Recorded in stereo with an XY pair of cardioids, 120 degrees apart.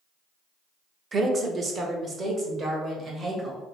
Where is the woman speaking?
35° right, 0.7 m; by 3.6 s 40° right, 2 m.